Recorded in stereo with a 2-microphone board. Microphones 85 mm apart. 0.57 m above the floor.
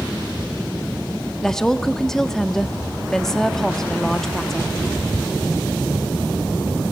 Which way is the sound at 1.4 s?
5° left (ahead or behind).